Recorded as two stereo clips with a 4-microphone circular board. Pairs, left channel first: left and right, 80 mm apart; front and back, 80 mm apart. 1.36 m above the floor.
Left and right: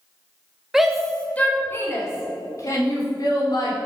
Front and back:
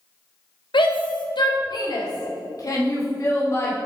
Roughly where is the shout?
Ahead.